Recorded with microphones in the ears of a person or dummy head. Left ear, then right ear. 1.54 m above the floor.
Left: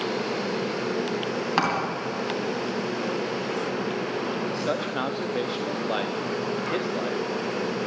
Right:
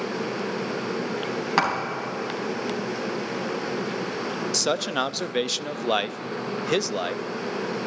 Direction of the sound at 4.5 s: 75° right (ahead or behind).